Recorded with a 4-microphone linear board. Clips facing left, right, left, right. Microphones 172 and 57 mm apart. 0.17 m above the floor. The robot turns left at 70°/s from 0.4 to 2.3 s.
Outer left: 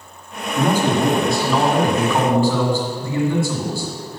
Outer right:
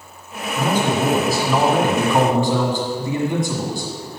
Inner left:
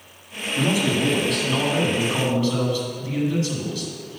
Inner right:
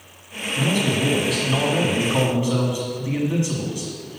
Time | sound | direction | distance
0.6 | a man speaking | 15° left (ahead or behind) | 1.5 m